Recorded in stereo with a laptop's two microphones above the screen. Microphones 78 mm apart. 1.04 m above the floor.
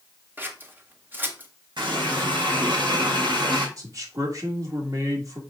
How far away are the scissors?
About 1.4 m.